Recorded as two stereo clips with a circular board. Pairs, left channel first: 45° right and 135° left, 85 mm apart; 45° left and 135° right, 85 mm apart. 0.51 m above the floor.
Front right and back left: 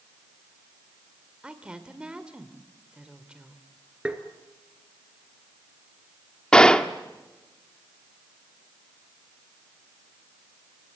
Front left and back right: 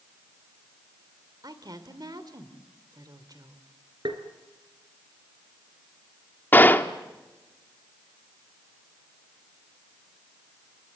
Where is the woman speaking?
150° right, 2 m.